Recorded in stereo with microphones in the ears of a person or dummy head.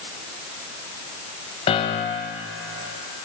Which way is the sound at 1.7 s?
35° left (ahead or behind).